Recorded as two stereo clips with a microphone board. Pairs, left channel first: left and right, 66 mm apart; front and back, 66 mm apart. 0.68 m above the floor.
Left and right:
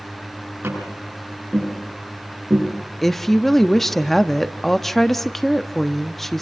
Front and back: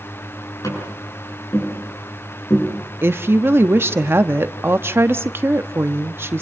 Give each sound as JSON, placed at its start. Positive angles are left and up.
{"t": 0.6, "sound": "tapping", "azimuth_deg": -35, "distance_m": 8.5}
{"t": 3.0, "sound": "a woman speaking", "azimuth_deg": 175, "distance_m": 0.9}